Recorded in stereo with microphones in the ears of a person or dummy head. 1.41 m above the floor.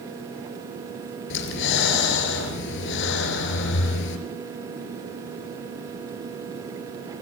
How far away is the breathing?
About 4 m.